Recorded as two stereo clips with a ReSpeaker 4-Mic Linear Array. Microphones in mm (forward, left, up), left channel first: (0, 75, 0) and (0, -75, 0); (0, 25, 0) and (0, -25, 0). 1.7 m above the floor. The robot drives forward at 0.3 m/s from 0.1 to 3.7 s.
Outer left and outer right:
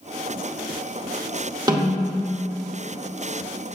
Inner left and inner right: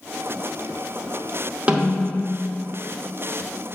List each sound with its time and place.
1.7 s a snare drum: 25° right (ahead or behind), 0.9 m; by 2.4 s 30° right (ahead or behind), 0.9 m